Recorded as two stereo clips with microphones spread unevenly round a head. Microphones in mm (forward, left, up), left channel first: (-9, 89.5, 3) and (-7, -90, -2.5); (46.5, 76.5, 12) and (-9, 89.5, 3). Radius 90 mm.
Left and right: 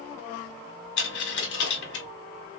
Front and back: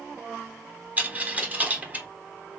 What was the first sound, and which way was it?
A dropped coin, 100° left.